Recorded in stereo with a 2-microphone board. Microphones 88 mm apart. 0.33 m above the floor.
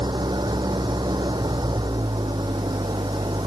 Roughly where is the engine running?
Right.